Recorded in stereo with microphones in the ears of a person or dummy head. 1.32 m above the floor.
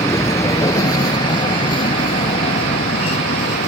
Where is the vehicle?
20° left (ahead or behind); by 3.7 s 45° left (ahead or behind).